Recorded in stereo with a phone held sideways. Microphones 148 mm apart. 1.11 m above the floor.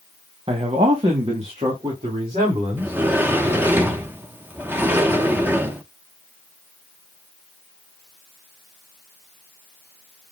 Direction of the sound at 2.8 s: 15° right (ahead or behind).